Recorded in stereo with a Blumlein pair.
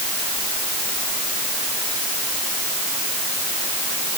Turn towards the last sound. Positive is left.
No sound to turn to.